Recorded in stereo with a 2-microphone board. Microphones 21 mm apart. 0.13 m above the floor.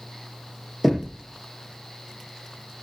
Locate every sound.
0.8 s knocking: centre (ahead or behind), 3 m